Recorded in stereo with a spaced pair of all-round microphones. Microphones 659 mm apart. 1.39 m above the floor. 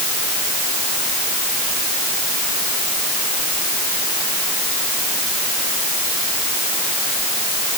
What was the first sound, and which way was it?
Only background noise.